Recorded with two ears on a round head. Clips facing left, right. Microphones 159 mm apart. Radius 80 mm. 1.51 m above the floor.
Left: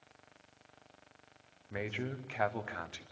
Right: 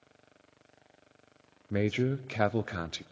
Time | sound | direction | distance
1.7 | a man speaking | 45° right (ahead or behind) | 0.5 m